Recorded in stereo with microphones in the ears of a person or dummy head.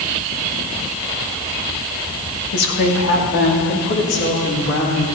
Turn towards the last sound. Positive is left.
turn(degrees=65)  # may be behind; listen again after turning